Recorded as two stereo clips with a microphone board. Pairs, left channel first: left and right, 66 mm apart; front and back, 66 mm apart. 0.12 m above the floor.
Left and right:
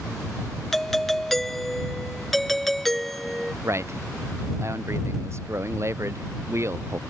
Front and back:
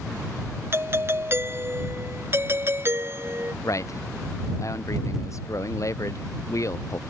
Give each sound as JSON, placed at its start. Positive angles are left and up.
{"t": 0.7, "sound": "a doorbell", "azimuth_deg": 175}
{"t": 3.6, "sound": "a man speaking", "azimuth_deg": -40}